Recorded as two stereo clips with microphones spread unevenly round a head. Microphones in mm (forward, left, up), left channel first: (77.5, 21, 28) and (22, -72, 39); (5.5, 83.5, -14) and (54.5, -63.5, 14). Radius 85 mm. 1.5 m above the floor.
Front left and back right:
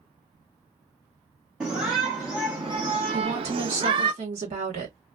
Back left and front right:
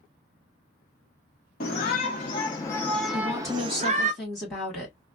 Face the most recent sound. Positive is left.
turn(degrees=-165)